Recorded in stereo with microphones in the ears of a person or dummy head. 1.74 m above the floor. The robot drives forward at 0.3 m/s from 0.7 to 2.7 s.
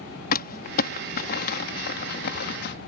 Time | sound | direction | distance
0.3 | crumpling | 55° left (ahead or behind) | ?